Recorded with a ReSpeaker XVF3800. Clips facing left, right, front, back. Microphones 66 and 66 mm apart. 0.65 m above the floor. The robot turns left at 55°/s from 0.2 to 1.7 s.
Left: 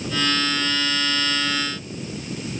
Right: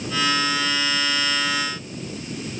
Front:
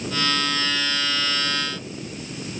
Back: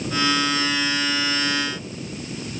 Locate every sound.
Only background noise.